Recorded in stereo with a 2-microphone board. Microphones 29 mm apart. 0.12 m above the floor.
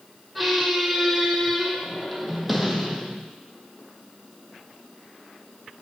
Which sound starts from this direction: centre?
A squeak, at 0.3 s.